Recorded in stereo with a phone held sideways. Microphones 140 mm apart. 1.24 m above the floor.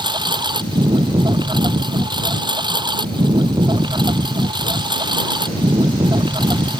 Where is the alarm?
I don't hear an alarm.